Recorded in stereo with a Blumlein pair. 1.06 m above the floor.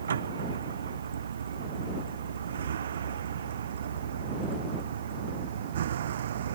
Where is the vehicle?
65° right; by 6.6 s 60° right.